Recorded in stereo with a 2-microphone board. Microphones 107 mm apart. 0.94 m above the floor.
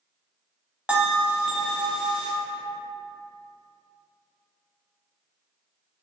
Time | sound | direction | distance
0.9 | a bell | 10° right (ahead or behind) | 0.7 m